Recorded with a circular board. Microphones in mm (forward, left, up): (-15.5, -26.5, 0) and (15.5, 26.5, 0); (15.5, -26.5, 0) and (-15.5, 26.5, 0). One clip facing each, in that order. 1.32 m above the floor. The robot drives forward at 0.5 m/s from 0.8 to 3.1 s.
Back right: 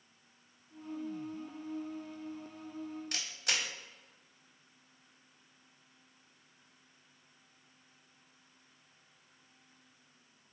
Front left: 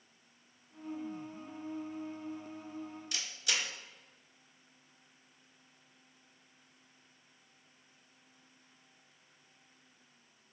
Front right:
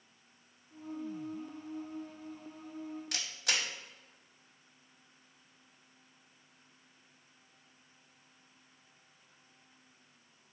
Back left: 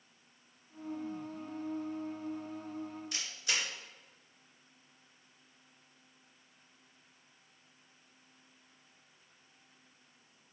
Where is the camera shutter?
80° right, 0.6 m.